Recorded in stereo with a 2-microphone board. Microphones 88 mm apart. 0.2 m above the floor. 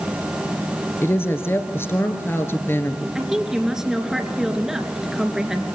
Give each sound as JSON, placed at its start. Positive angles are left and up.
{"t": 1.0, "sound": "a woman speaking", "side_deg": 25, "distance_m": 2.5}
{"t": 3.1, "sound": "a woman speaking", "side_deg": -5, "distance_m": 2.5}